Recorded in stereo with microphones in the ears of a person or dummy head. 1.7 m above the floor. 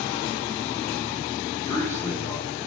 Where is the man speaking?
5° left (ahead or behind), 1.2 m.